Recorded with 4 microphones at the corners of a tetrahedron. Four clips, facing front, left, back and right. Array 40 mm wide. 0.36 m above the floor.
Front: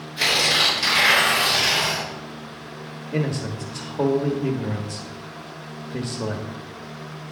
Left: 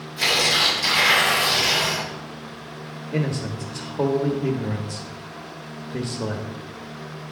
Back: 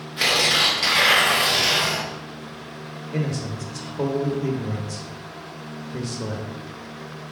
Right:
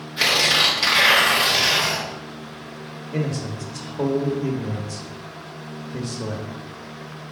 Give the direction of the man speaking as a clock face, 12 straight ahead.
11 o'clock.